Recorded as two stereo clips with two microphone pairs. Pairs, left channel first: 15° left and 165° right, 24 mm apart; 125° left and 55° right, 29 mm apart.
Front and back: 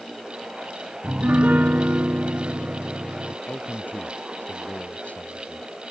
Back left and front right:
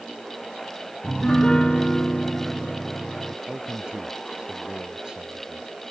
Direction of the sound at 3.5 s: 10° left.